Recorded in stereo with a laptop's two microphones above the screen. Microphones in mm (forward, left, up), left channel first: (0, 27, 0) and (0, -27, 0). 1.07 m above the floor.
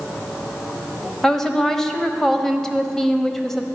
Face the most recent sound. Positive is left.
turn(degrees=5)  # may be behind; listen again after turning